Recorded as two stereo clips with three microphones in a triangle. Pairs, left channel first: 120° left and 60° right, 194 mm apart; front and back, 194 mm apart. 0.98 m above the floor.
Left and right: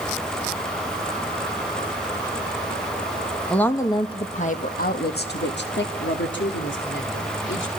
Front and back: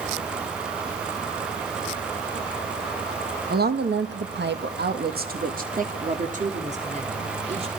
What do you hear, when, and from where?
3.5 s a woman speaking: 155° right, 1.4 m; by 7.7 s 125° left, 4 m